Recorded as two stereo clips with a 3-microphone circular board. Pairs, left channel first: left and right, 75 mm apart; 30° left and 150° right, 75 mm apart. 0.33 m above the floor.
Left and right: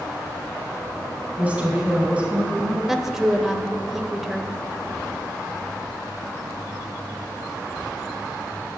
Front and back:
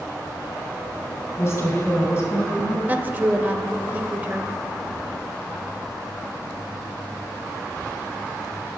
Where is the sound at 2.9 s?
170° right, 0.9 m.